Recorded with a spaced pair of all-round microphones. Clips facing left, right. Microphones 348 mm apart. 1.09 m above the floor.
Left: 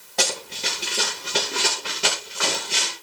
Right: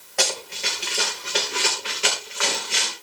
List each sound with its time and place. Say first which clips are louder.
0.2 s running footsteps: even; 50° left (ahead or behind), 5.5 m; by 2.9 s 55° left (ahead or behind), 6.5 m